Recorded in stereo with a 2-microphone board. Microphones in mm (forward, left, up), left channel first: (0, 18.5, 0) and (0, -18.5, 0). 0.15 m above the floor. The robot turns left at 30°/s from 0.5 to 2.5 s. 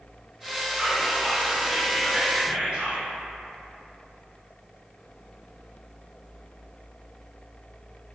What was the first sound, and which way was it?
Whispering, straight ahead.